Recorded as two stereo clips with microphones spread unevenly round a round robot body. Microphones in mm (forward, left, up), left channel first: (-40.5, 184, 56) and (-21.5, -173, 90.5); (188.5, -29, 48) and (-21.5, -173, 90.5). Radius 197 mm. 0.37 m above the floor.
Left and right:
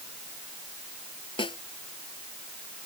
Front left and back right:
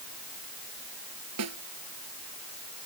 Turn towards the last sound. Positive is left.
turn(degrees=170)